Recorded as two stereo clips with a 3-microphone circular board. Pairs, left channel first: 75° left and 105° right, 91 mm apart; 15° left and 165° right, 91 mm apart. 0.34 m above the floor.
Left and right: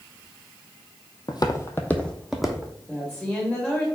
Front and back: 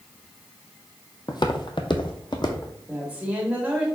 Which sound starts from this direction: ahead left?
Footsteps, at 1.3 s.